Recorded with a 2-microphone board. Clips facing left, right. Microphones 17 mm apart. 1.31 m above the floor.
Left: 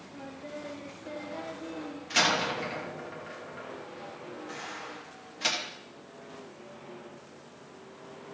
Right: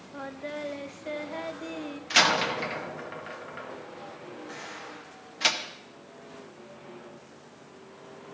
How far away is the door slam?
About 1.3 m.